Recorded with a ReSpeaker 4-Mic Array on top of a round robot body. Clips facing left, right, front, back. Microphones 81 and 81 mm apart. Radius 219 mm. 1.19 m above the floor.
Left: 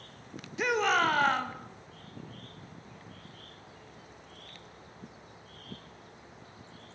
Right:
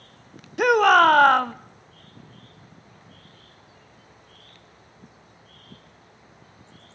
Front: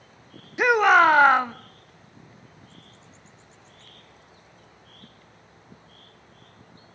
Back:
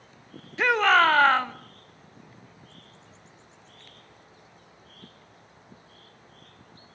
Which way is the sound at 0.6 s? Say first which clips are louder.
Right 11 dB, front 3 dB; 70° right.